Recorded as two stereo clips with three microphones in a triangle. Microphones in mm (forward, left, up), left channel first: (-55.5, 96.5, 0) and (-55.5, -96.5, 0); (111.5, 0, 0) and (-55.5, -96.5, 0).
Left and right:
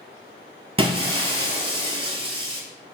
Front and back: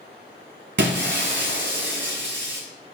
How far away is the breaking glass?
About 0.5 m.